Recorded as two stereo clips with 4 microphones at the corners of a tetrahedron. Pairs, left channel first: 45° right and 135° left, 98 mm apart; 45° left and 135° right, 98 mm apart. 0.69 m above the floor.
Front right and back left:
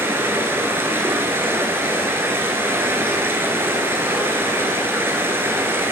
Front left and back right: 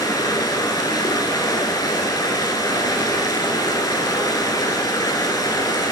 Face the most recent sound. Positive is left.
turn(degrees=75)